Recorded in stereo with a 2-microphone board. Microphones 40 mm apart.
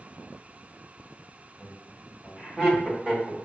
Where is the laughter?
15° right (ahead or behind), 1.5 m.